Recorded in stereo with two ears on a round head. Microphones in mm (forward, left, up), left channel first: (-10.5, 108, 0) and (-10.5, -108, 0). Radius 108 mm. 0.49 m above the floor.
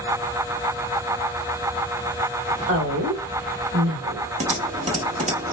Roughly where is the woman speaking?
Right.